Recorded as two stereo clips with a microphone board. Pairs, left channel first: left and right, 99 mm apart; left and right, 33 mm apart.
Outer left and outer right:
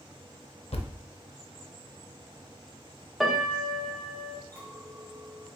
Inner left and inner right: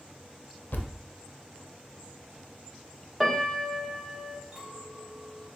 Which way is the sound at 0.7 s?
90° left.